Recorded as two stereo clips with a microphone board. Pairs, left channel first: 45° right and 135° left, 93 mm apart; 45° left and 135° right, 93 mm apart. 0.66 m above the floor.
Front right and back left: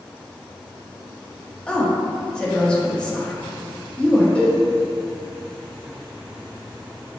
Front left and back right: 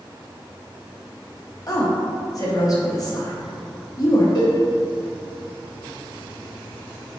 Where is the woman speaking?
30° left, 0.7 m.